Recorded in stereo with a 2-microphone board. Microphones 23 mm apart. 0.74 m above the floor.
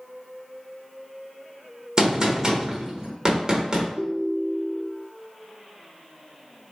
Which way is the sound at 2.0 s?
30° right (ahead or behind).